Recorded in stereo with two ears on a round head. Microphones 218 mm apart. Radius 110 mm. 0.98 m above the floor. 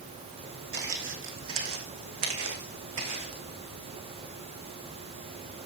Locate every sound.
0.7 s footsteps: 45° right (ahead or behind), 2.5 m; by 3.4 s 75° right (ahead or behind), 4 m